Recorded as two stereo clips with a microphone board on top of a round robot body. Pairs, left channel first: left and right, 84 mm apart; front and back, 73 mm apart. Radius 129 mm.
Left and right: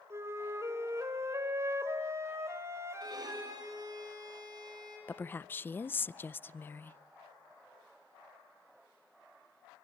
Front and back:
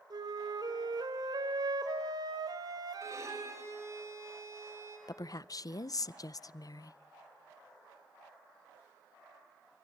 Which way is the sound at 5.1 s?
25° left.